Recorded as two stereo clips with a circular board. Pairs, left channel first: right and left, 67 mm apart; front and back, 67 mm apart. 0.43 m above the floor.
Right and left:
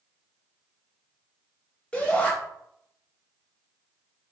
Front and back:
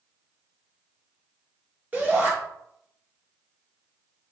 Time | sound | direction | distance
1.9 | a shout | 140° right | 1.4 m